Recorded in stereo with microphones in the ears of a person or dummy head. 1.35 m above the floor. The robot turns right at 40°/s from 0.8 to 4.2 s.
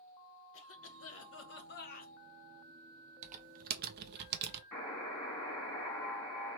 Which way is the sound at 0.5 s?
80° left.